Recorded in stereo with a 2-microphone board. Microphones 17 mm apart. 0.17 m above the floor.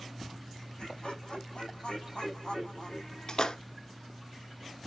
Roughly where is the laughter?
Left.